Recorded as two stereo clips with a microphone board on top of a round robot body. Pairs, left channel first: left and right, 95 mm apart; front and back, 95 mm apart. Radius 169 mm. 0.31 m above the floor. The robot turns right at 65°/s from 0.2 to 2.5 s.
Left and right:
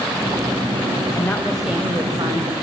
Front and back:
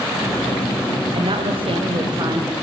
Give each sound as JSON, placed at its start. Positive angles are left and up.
{"t": 1.1, "sound": "a woman speaking", "azimuth_deg": 150, "distance_m": 3.5}